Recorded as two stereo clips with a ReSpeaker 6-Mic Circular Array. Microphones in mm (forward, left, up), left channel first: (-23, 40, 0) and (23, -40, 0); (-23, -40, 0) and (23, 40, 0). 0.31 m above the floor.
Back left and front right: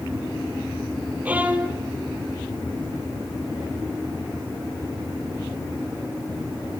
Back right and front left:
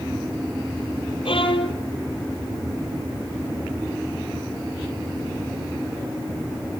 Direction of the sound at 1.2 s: 135° right.